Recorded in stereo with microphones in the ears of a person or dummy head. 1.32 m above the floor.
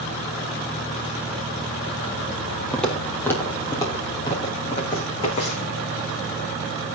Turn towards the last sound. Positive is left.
turn(degrees=40)  # may be behind; listen again after turning